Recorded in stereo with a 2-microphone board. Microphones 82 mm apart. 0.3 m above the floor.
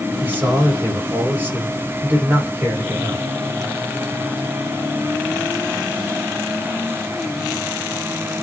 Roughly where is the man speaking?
Right.